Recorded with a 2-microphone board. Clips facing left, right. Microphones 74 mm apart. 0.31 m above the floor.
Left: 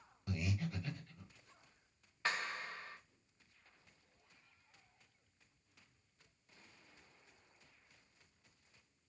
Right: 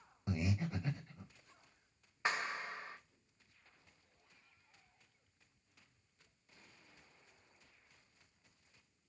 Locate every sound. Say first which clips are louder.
0.3 s breathing: right 3 dB; 25° right (ahead or behind), 0.5 m
2.2 s a clap: right 2 dB; 20° right (ahead or behind), 1.0 m